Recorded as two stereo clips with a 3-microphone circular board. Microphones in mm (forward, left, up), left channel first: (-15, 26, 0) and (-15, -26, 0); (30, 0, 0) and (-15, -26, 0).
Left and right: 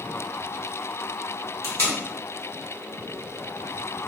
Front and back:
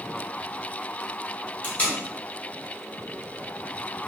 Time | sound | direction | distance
1.6 | tape being pulled | 85° left | 0.9 m